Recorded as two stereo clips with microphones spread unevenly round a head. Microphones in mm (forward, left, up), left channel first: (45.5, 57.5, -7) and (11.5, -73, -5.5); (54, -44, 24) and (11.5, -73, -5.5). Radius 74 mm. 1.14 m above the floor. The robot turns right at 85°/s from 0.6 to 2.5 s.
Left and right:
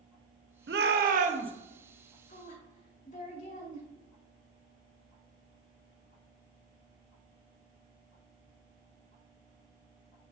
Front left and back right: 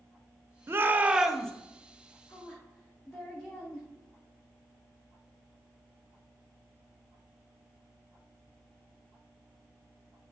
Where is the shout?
120° right, 1.1 m; by 1.5 s 50° right, 1.1 m.